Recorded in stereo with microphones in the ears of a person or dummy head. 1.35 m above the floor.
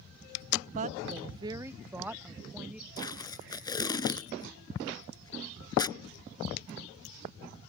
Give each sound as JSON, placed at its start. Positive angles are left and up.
{"t": 0.8, "sound": "a woman speaking", "side_deg": -45}
{"t": 3.0, "sound": "tape being pulled", "side_deg": 25}